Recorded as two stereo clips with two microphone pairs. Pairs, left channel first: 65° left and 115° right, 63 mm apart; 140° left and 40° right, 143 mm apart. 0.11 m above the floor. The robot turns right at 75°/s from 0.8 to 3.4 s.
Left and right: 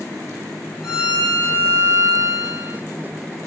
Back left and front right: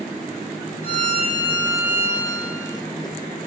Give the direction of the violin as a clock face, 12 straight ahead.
7 o'clock.